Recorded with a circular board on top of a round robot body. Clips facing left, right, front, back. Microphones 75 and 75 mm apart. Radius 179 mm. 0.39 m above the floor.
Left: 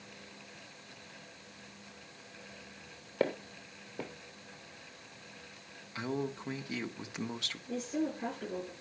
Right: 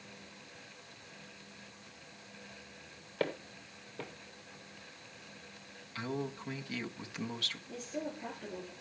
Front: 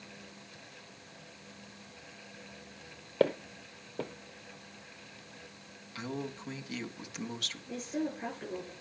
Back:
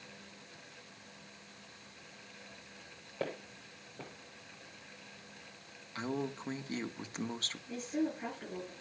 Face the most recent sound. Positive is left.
turn(degrees=80)